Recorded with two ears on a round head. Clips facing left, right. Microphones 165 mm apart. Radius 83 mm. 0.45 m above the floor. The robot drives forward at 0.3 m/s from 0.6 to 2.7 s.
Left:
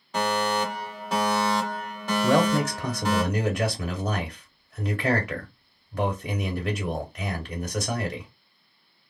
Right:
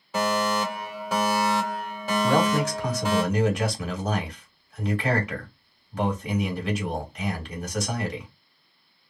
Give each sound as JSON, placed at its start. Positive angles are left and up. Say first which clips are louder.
{"t": 0.1, "sound": "a fire alarm", "louder": "right 1 dB", "side_deg": -5, "distance_m": 1.7}
{"t": 2.2, "sound": "a man speaking", "louder": "left 1 dB", "side_deg": 40, "distance_m": 2.0}